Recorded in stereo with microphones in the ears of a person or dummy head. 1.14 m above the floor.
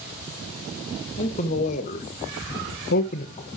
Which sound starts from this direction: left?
A man speaking, at 1.2 s.